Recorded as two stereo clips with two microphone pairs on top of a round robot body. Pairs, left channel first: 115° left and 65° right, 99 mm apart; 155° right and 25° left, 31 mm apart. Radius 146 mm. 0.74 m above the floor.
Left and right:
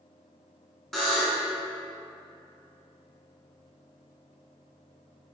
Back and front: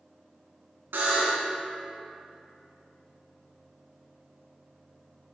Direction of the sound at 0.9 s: 20° left.